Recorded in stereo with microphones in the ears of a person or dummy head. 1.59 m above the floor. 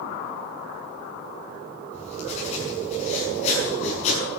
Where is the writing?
40° left (ahead or behind), 7 m.